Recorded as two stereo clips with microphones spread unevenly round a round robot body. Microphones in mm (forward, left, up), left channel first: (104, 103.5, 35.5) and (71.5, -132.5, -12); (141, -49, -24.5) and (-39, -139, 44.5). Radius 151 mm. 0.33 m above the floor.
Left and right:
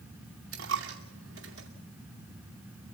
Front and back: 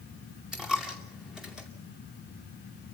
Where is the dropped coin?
65° right, 2.5 m.